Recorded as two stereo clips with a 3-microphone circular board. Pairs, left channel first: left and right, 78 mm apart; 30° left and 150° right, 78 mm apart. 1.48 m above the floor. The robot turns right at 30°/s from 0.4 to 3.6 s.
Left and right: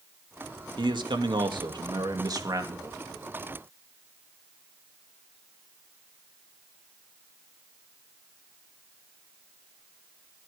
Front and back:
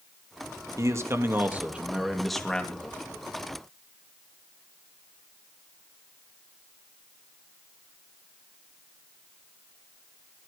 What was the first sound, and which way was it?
A man speaking, 105° right.